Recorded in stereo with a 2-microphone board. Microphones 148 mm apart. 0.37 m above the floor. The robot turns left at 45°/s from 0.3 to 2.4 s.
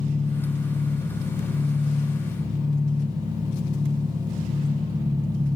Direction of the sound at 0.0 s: 65° left.